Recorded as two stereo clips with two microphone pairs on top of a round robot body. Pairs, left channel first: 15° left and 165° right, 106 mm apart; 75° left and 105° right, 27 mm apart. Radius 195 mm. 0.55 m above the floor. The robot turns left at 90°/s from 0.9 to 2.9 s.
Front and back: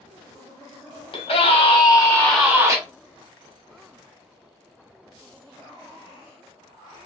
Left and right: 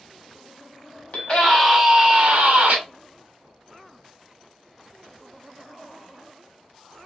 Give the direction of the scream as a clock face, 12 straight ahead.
11 o'clock.